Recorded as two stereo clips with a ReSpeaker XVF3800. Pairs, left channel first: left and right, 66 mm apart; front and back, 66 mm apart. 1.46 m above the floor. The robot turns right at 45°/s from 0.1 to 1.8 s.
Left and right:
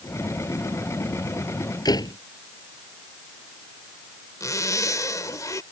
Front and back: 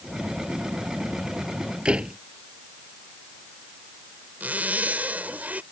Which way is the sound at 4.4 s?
115° left.